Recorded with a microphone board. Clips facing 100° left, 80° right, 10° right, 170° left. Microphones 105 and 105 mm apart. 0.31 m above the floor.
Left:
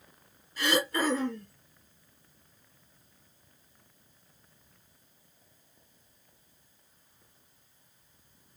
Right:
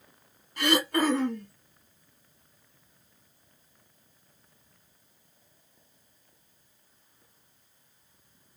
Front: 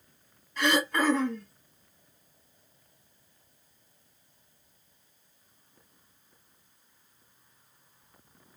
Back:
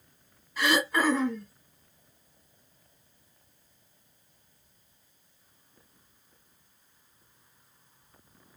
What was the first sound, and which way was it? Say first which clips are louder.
Throat clearing: right 3 dB, even; 110° right.